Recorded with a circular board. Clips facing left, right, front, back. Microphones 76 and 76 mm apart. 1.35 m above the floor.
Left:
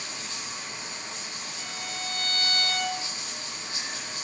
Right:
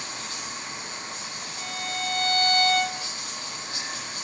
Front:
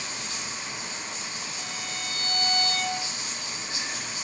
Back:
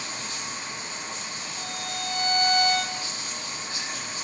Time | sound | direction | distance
0.0 | running water | 135° right | 8.5 m
1.6 | a violin | 150° right | 4.5 m